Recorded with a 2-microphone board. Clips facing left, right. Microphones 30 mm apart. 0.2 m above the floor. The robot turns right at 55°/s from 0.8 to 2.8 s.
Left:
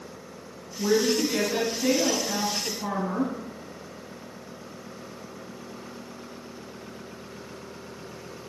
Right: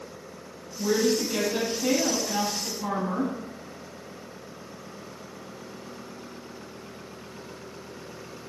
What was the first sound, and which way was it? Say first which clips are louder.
A woman speaking: left 1 dB; 90° left.